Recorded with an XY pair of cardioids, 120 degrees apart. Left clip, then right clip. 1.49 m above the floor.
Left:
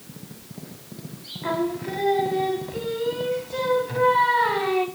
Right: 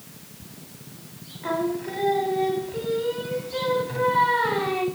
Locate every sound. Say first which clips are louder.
1.4 s singing: even; 20° left, 2 m